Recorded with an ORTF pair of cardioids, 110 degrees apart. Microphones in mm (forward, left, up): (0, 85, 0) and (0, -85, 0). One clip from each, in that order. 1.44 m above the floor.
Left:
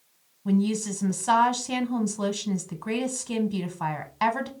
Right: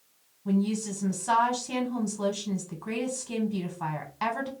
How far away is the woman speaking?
About 0.7 m.